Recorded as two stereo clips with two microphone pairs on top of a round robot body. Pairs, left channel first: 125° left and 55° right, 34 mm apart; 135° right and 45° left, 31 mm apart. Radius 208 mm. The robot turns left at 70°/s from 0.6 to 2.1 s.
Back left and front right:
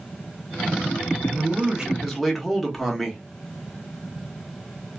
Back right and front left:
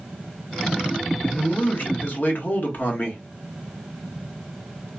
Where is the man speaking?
85° right, 1.9 m; by 3.2 s 145° right, 1.9 m.